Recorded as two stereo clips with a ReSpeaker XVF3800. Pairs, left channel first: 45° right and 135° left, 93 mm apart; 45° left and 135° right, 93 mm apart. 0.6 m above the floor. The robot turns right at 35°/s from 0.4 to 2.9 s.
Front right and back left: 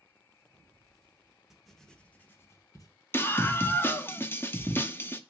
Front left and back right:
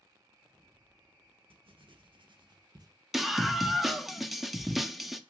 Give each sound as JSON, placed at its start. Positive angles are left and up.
{"t": 1.5, "sound": "writing", "azimuth_deg": -140, "distance_m": 0.8}
{"t": 3.1, "sound": "a scream", "azimuth_deg": -50, "distance_m": 0.6}